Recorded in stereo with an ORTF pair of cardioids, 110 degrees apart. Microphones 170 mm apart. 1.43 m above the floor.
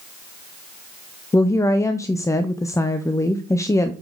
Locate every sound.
1.3 s a woman speaking: 15° left, 0.6 m